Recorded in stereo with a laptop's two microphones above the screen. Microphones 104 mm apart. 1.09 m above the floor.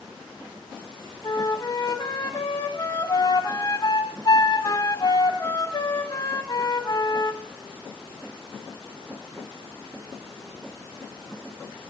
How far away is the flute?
About 0.9 m.